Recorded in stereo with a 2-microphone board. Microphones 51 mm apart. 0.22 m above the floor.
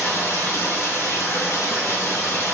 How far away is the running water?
About 2 m.